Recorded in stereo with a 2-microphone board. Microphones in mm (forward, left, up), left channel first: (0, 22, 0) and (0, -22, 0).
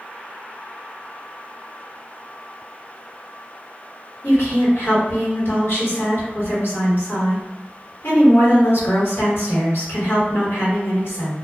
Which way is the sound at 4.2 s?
65° left (ahead or behind).